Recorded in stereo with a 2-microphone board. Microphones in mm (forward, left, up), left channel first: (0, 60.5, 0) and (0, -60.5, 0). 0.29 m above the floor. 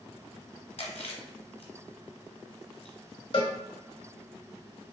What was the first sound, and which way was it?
Chewing, 60° left (ahead or behind).